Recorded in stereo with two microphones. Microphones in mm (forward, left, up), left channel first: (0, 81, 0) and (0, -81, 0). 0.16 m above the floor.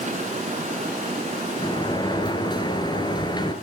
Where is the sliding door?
25° left (ahead or behind), 1.9 m.